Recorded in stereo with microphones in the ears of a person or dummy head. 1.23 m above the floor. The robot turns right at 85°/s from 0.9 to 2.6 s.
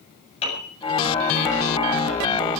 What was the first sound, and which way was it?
A piano, 35° left (ahead or behind).